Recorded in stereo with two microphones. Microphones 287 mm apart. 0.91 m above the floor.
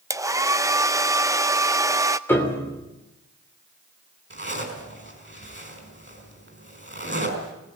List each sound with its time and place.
0.1 s a hair dryer: 10° right (ahead or behind), 0.5 m
2.3 s a piano: 10° left (ahead or behind), 3 m
4.3 s a zipper: 40° right (ahead or behind), 5 m